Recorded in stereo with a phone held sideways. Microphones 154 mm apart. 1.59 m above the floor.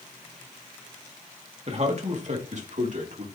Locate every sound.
1.7 s a man speaking: 45° right (ahead or behind), 2 m; by 3.3 s 60° right (ahead or behind), 3 m